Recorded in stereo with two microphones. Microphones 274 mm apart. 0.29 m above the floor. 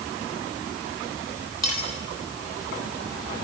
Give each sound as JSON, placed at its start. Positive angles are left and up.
{"t": 1.6, "sound": "cutlery clinking", "side_deg": 75, "distance_m": 5.5}